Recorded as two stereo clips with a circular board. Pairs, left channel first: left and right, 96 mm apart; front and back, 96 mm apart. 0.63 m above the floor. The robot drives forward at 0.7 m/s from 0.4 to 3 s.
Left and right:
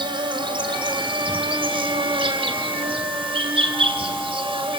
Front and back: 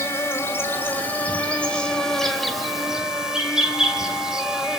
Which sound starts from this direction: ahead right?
An insect, at 0.0 s.